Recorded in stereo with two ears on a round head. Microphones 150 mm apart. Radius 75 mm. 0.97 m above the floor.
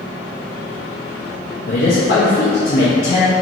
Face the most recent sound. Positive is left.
turn(degrees=60)  # may be behind; listen again after turning